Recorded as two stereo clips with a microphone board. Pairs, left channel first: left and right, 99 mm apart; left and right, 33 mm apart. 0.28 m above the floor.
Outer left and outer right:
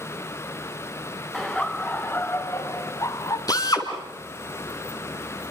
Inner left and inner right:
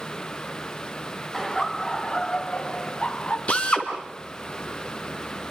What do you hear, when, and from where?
1.3 s laughter: 5° left (ahead or behind), 1.6 m; by 3.4 s 40° left (ahead or behind), 3 m
3.5 s a drill: 40° left (ahead or behind), 3.5 m